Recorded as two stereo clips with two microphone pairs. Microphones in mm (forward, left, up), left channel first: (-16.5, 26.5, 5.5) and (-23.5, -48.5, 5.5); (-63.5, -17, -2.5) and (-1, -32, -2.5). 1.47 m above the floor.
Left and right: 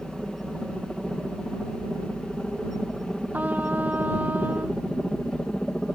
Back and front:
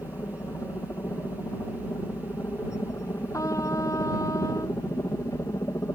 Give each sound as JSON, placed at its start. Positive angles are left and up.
{"t": 0.0, "sound": "a helicopter", "azimuth_deg": 175}
{"t": 3.3, "sound": "a trumpet", "azimuth_deg": -165}